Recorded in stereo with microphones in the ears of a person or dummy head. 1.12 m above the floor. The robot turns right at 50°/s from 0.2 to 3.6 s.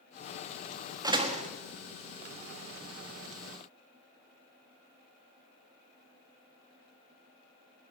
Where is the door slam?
20° right (ahead or behind), 1.4 m; by 1.5 s 40° right (ahead or behind), 1.4 m.